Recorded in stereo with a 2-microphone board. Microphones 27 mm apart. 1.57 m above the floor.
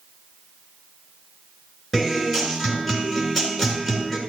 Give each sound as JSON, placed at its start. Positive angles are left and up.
{"t": 1.9, "sound": "a guitar", "side_deg": 5, "distance_m": 3.5}